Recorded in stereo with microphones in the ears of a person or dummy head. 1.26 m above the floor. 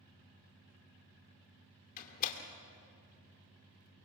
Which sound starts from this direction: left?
A door slam, at 2.0 s.